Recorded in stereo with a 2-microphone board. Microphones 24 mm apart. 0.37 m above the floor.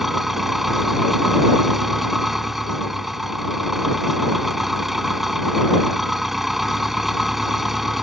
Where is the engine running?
15° right (ahead or behind).